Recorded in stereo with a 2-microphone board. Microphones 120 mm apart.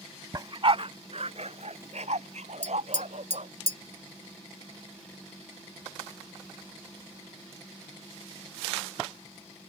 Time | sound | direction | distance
0.3 | a dog barking | 35° right (ahead or behind) | ?
2.6 | tapping | 50° left (ahead or behind) | ?